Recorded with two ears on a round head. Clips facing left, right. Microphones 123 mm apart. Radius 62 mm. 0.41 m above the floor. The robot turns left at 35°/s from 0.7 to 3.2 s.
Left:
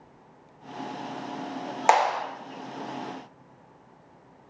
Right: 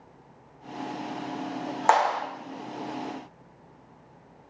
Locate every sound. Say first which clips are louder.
1.9 s a clap: left 1 dB; 20° left (ahead or behind), 0.6 m